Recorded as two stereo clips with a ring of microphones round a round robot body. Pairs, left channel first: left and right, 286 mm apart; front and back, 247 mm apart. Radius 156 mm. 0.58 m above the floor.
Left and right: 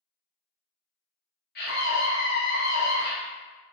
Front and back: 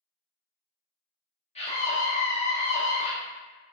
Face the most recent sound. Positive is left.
turn(degrees=55)